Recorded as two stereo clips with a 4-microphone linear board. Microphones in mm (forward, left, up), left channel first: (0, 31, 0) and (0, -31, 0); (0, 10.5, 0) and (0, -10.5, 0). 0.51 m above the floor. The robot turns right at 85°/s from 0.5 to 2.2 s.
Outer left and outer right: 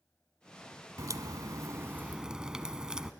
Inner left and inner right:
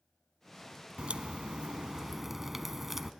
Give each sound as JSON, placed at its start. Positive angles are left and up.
{"t": 1.0, "sound": "a crack", "azimuth_deg": -115, "distance_m": 0.8}